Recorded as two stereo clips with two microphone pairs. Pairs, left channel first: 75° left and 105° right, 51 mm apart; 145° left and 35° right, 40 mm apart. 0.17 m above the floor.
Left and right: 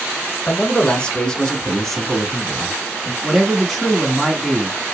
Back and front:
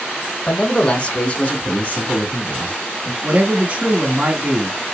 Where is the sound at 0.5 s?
105° left, 1.3 m; by 3.1 s straight behind, 1.9 m.